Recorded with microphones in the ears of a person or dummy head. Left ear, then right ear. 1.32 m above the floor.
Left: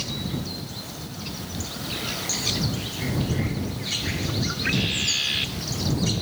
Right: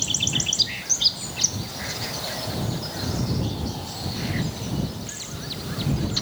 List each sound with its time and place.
Only background noise.